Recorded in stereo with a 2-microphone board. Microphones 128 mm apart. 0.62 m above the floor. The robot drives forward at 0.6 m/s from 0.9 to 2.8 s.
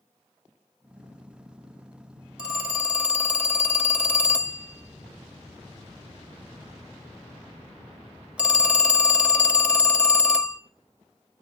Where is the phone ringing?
10° right (ahead or behind), 0.8 m.